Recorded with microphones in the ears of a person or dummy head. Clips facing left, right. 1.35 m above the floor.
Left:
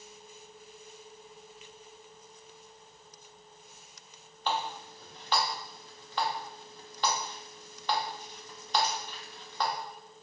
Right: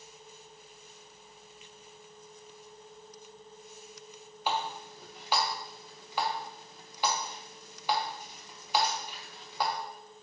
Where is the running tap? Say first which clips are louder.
Even; 10° right (ahead or behind), 0.5 m.